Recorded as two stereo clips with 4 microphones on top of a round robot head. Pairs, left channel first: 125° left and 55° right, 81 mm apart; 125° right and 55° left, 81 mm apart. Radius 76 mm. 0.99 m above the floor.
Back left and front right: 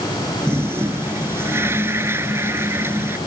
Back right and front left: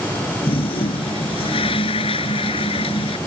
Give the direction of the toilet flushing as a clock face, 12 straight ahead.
4 o'clock.